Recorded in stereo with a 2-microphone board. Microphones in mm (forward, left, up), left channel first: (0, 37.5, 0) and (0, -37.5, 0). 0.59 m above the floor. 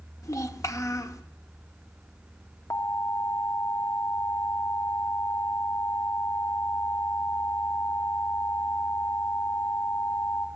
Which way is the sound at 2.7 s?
40° left (ahead or behind).